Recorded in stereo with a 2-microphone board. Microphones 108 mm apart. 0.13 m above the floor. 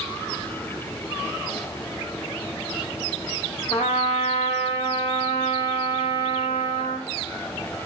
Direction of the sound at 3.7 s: 75° left (ahead or behind).